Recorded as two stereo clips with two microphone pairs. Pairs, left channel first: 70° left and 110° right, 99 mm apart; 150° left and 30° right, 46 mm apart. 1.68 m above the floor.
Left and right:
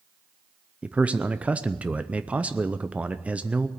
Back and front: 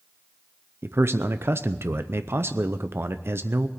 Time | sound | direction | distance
0.8 | a man speaking | 35° right | 0.6 m